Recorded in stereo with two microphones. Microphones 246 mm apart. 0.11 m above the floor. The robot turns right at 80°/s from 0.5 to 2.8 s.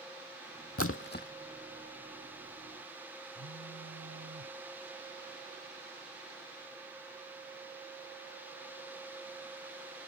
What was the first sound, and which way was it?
A splash, 75° left (ahead or behind).